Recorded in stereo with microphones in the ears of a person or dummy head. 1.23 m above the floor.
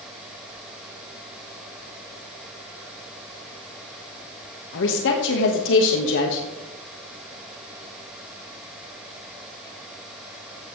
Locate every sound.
4.7 s a woman speaking: 65° left (ahead or behind), 1.4 m